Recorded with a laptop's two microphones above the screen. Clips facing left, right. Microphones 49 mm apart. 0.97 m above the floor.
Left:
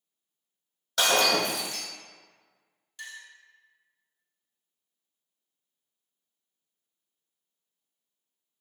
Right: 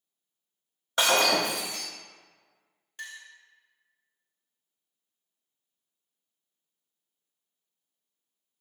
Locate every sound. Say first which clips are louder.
1.0 s breaking glass: even; 30° right (ahead or behind), 1.7 m
3.0 s a clink: right 1 dB; 40° right (ahead or behind), 1.1 m